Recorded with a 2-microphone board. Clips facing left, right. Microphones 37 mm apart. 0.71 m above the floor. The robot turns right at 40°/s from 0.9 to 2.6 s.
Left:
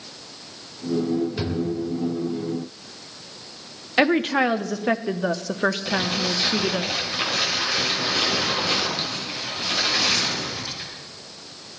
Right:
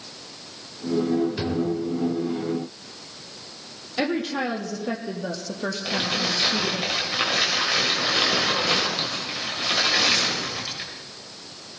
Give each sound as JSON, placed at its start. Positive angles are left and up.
{"t": 1.4, "sound": "a drawer", "side_deg": -10, "distance_m": 1.6}
{"t": 4.0, "sound": "a woman speaking", "side_deg": 55, "distance_m": 0.9}
{"t": 5.8, "sound": "crumpling", "side_deg": -25, "distance_m": 3.0}